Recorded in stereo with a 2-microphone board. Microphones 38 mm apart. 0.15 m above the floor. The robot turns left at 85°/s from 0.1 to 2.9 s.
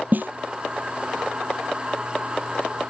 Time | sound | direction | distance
0.1 | a snare drum | 50° right (ahead or behind) | ?